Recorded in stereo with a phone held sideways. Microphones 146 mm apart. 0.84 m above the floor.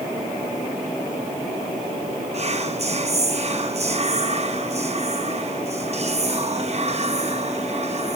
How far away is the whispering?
About 0.8 m.